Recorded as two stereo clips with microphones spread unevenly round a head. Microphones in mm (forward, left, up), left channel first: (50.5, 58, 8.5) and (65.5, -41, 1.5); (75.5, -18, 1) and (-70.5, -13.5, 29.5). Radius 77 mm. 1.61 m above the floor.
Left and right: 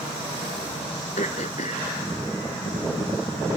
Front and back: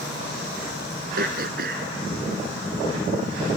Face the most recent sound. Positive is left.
turn(degrees=145)